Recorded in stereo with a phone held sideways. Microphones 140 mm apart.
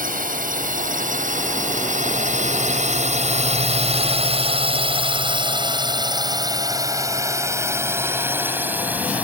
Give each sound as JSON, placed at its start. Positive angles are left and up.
{"t": 0.0, "sound": "a drone", "side_deg": -80}